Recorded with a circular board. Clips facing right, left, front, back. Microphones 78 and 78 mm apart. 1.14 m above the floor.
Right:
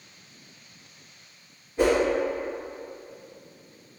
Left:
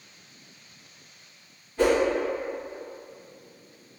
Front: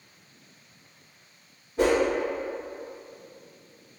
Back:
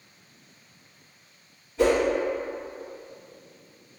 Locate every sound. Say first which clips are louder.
1.8 s a whoosh: even, back 1 dB; 20° right, 1.8 m